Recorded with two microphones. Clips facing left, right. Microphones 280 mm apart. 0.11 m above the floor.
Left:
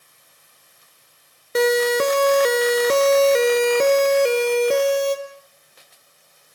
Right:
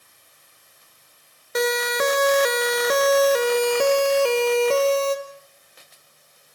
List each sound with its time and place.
1.6 s a siren: 30° left (ahead or behind), 2 m; by 5.2 s 15° left (ahead or behind), 3.5 m